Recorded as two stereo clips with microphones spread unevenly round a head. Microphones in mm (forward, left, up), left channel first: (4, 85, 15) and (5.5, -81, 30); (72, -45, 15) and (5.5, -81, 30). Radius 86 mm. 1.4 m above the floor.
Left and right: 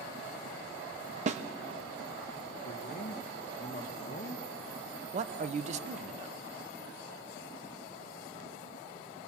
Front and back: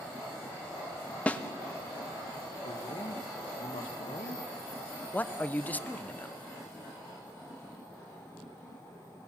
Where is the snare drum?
40° right, 1.1 m.